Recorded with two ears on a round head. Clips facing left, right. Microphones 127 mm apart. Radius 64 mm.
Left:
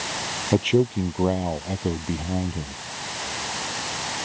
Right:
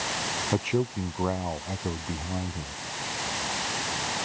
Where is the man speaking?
30° left (ahead or behind).